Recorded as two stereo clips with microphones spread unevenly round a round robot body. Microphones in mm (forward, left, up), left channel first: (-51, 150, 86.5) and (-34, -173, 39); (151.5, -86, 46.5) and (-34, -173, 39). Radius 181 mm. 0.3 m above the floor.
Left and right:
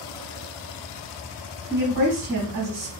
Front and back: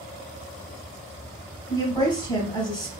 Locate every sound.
1.7 s a woman speaking: 45° right, 1.9 m